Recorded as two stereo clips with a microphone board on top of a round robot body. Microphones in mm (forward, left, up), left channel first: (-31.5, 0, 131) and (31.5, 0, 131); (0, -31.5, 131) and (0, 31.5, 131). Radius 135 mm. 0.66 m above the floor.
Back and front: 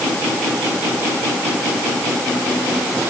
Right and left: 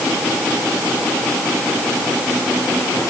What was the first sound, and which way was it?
Only background noise.